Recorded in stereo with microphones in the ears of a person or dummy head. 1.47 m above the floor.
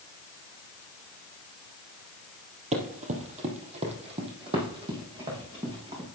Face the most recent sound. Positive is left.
turn(degrees=-30)  # may be behind; listen again after turning